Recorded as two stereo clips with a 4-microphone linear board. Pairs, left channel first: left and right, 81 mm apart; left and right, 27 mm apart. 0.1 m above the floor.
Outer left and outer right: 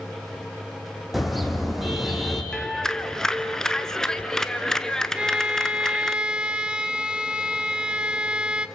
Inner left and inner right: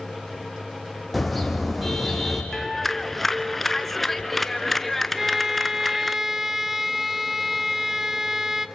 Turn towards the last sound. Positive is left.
turn(degrees=-10)  # may be behind; listen again after turning